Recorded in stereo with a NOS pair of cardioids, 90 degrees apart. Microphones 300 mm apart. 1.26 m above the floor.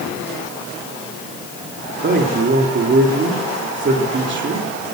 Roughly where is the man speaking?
Ahead right.